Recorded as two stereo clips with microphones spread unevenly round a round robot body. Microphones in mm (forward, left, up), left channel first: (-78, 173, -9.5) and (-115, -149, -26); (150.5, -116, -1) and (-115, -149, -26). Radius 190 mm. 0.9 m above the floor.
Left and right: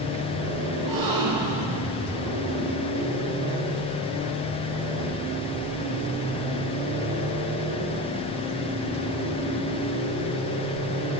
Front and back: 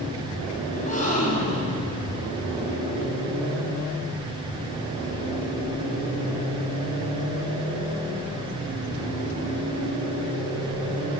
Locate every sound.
0.7 s a gasp: 55° right, 8 m